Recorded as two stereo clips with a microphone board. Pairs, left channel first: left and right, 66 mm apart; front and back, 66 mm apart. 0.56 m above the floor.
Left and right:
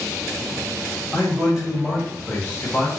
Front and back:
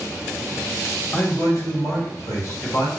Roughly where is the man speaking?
Ahead right.